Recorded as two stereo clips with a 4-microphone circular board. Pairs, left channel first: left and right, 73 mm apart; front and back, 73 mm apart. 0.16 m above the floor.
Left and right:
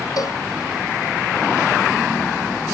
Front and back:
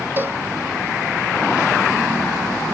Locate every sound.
0.2 s a cowbell: 120° left